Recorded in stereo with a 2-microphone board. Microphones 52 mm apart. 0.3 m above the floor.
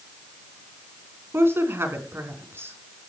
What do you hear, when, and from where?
1.3 s a woman speaking: 55° right (ahead or behind), 4 m